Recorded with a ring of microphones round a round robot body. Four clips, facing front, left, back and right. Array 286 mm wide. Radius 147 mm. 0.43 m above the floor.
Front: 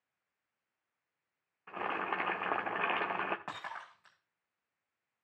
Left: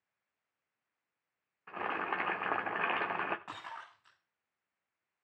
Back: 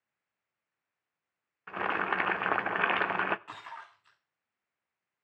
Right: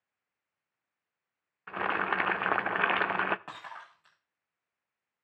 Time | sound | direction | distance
1.7 | boiling | 125° right | 0.6 m
3.5 | breaking glass | 30° right | 9.5 m